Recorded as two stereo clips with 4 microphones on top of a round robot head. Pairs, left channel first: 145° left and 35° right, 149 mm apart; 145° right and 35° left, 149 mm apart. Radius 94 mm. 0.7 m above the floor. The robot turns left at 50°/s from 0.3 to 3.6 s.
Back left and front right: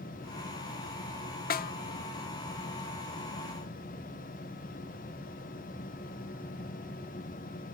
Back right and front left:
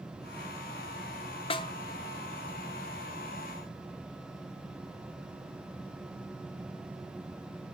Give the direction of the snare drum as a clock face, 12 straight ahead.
7 o'clock.